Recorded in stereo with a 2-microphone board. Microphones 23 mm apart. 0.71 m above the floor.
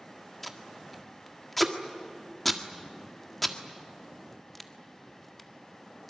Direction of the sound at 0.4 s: 5° left (ahead or behind).